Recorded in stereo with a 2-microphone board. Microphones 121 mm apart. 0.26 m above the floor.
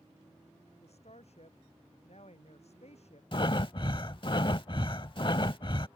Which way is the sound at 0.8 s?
60° left (ahead or behind).